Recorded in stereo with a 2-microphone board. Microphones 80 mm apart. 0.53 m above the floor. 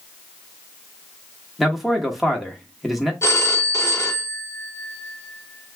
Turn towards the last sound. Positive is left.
turn(degrees=35)  # may be behind; listen again after turning